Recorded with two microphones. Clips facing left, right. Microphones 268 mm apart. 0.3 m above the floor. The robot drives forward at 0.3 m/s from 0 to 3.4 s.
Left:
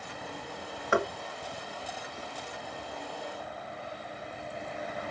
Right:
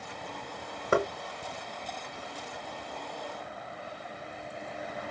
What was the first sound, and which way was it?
Knocking, 40° right (ahead or behind).